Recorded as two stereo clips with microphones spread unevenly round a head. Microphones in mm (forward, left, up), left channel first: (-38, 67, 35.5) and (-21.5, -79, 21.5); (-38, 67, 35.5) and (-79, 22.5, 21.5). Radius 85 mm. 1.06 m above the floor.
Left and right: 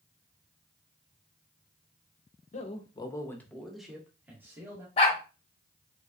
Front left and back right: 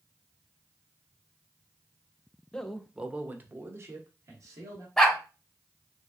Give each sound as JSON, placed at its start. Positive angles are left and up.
{"t": 2.5, "sound": "a man speaking", "azimuth_deg": 130, "distance_m": 0.7}
{"t": 5.0, "sound": "a dog barking", "azimuth_deg": 115, "distance_m": 0.7}